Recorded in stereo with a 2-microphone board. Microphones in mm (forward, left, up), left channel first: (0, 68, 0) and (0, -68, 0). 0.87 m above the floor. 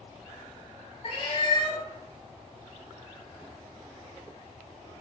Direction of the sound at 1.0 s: 45° left (ahead or behind).